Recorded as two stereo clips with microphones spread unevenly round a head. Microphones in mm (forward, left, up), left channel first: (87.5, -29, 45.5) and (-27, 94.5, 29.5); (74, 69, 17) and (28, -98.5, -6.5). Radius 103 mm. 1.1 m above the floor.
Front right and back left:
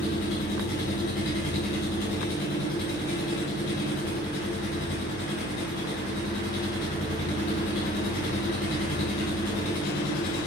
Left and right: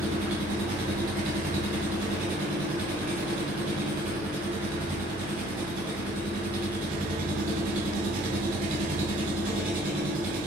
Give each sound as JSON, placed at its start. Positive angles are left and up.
{"t": 0.0, "sound": "an engine running", "azimuth_deg": -70, "distance_m": 4.5}